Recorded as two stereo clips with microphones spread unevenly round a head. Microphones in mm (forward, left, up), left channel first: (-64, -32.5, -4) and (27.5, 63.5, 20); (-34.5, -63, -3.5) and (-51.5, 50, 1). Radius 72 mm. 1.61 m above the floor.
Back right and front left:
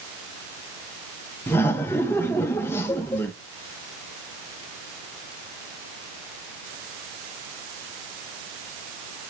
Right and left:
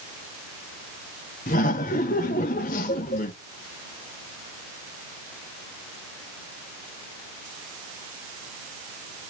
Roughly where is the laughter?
Ahead right.